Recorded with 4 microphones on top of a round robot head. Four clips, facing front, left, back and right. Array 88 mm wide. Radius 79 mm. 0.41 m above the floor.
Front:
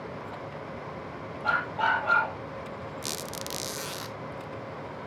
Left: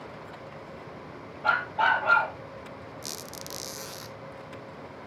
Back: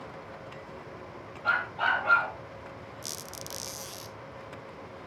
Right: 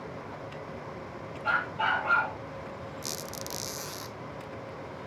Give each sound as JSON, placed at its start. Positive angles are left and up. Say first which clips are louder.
{"t": 1.4, "sound": "a dog barking", "louder": "left 4 dB, front 1 dB", "azimuth_deg": 75, "distance_m": 4.0}
{"t": 3.0, "sound": "a squeak", "louder": "right 2 dB, front 6 dB", "azimuth_deg": 0, "distance_m": 0.6}